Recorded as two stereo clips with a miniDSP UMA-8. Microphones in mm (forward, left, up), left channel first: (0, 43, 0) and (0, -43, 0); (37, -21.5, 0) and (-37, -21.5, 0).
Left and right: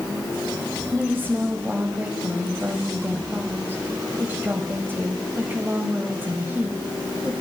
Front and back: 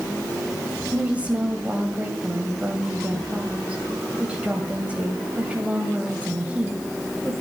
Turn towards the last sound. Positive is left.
turn(degrees=-130)